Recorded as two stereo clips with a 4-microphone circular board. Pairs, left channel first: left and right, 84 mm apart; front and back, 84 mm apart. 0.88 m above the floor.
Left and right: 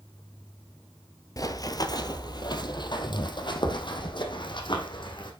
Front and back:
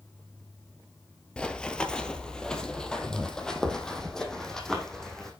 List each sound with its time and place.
0.0 s an insect: 65° left, 3 m
1.4 s running footsteps: 75° left, 1.2 m; by 5.3 s 80° left, 3 m